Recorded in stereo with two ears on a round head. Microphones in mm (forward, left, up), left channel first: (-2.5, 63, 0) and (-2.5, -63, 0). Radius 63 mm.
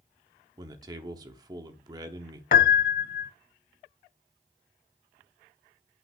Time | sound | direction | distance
0.6 | a man speaking | 25° right (ahead or behind) | 0.9 m
2.5 | a piano | 65° left (ahead or behind) | 0.6 m